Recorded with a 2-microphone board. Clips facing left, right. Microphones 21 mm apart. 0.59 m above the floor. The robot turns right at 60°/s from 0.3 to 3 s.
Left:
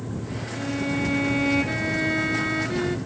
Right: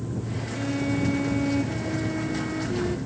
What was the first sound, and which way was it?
A violin, straight ahead.